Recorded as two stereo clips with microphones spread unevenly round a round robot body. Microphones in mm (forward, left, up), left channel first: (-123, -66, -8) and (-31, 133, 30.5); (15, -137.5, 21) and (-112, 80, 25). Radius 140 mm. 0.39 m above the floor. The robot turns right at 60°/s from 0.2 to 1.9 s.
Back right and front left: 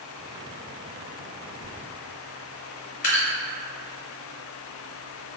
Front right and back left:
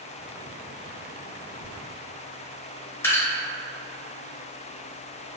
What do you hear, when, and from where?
1.6 s a zipper: 90° right, 0.7 m; by 1.7 s 80° right, 0.7 m
3.0 s dripping: 135° right, 1.4 m